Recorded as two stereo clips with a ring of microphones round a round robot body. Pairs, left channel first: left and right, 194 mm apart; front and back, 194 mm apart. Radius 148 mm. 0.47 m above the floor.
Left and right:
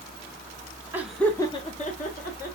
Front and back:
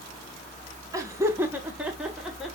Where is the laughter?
145° right, 0.8 m; by 2.5 s 90° left, 1.3 m.